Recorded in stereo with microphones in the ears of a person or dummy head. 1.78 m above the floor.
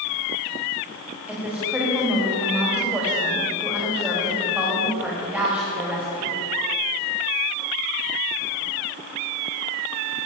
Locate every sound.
1.3 s a woman speaking: 5° right (ahead or behind), 3.5 m